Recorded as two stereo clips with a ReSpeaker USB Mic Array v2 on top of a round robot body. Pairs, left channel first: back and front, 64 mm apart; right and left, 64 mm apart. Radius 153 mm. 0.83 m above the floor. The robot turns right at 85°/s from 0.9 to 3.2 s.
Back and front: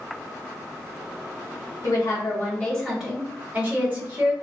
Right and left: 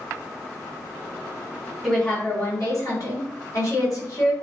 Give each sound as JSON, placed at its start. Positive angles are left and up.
{"t": 1.8, "sound": "a woman speaking", "azimuth_deg": 180, "distance_m": 1.5}